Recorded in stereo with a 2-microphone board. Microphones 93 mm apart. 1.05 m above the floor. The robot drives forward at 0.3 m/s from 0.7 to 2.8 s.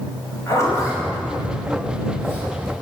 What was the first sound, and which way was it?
A zipper, 30° left (ahead or behind).